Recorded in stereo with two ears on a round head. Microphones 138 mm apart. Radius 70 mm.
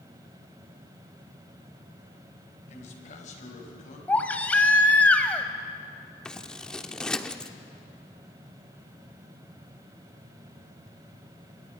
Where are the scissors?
5° left (ahead or behind), 0.8 m.